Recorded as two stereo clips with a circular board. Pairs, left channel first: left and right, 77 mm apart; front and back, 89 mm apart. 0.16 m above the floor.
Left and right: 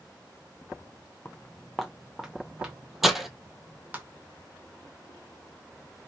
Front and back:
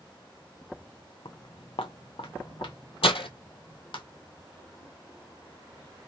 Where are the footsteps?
20° left, 0.5 m; by 4.0 s 25° right, 2.0 m.